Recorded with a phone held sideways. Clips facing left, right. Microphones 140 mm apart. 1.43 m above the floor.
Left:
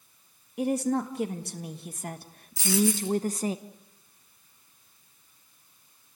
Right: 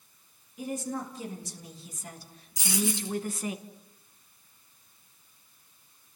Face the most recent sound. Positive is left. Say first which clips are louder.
# left 5 dB
turn(degrees=-15)  # may be behind; listen again after turning